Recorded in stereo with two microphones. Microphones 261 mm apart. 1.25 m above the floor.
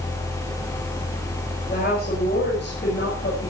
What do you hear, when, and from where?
1.7 s a woman speaking: 35° left (ahead or behind), 6 m; by 3.5 s 45° left (ahead or behind), 6 m